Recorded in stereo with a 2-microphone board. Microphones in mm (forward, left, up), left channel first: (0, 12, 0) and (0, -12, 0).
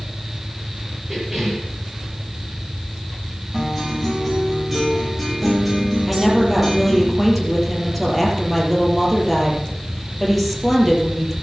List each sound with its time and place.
1.1 s a cough: 15° right (ahead or behind), 7 m
3.5 s a guitar: 15° right (ahead or behind), 9 m
6.1 s a woman speaking: centre (ahead or behind), 5.5 m